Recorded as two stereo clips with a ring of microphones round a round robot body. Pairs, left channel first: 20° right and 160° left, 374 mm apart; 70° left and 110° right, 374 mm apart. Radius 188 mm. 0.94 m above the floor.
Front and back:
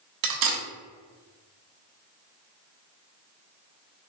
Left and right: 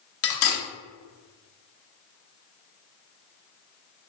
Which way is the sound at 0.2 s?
125° left.